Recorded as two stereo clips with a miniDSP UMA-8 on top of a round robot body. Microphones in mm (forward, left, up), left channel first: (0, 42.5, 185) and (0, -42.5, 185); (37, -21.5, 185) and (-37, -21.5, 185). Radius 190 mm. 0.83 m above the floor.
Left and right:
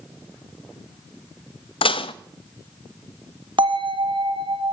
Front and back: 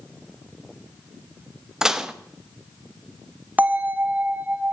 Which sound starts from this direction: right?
A bell, at 3.6 s.